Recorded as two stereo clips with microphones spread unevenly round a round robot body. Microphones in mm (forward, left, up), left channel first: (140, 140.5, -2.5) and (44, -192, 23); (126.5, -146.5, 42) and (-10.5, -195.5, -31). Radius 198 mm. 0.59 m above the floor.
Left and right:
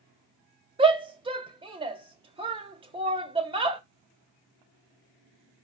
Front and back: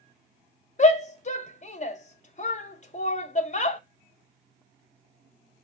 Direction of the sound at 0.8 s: 35° right.